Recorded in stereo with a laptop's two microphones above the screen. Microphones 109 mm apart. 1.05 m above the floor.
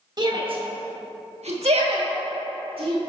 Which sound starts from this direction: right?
A shout, at 0.2 s.